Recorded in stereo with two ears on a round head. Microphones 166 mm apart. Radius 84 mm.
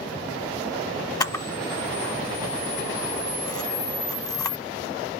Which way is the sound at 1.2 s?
20° left (ahead or behind).